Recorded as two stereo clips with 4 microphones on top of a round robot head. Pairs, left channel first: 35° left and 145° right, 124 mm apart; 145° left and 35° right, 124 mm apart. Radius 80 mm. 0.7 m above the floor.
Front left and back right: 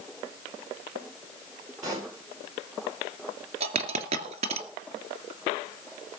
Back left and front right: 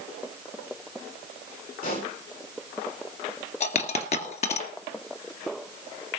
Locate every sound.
1.8 s a pop: 155° left, 10 m
3.6 s a dropped coin: straight behind, 2 m